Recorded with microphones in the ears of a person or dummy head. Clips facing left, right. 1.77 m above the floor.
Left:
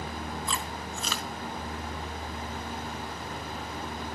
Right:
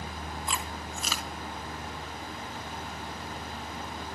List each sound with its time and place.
0.5 s chewing: 15° right (ahead or behind), 1.1 m